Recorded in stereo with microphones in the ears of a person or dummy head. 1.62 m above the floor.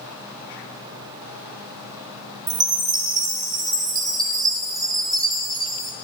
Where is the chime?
25° right (ahead or behind), 1.0 m.